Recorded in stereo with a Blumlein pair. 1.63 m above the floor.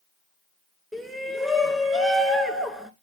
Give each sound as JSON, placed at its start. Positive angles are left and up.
{"t": 0.9, "sound": "a shout", "azimuth_deg": 0, "distance_m": 2.5}